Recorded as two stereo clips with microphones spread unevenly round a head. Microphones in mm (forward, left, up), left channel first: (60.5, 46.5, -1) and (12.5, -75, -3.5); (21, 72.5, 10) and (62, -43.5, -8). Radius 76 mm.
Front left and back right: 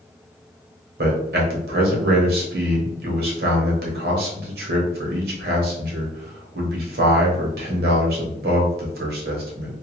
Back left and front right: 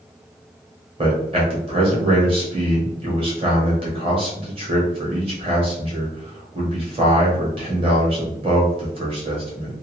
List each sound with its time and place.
1.0 s a man speaking: 130° right, 0.9 m